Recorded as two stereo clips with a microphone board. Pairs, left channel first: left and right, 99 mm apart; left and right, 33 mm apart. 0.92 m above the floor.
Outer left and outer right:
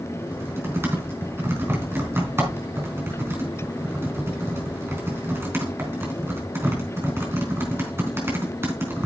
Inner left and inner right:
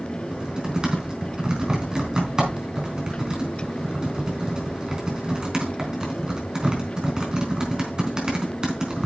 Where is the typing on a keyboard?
25° right (ahead or behind), 4 m.